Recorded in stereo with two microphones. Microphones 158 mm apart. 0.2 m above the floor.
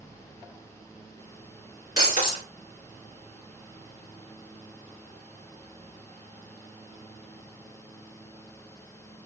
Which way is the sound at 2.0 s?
60° left (ahead or behind).